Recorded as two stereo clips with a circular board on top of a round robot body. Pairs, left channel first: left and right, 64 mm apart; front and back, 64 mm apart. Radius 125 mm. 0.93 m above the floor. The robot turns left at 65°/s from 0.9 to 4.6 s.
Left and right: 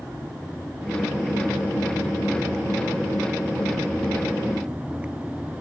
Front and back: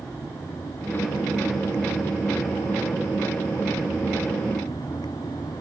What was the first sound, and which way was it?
Only background noise.